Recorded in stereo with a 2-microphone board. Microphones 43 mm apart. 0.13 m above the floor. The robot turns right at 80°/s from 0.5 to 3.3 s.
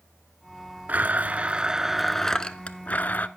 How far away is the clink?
I don't hear a clink.